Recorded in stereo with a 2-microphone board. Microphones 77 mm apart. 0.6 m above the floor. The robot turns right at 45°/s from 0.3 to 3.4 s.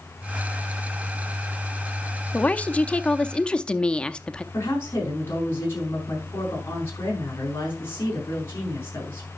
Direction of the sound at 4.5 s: 35° left (ahead or behind).